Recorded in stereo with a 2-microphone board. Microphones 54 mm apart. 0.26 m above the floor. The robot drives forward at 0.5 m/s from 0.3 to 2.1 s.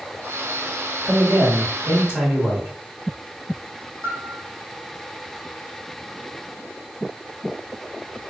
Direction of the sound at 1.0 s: 25° right (ahead or behind).